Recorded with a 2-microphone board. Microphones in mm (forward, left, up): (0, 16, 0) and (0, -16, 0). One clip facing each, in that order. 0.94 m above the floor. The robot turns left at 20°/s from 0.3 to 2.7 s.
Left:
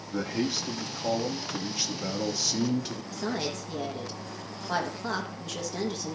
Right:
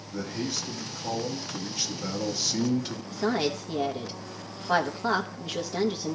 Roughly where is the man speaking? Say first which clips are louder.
Left 3 dB; ahead left.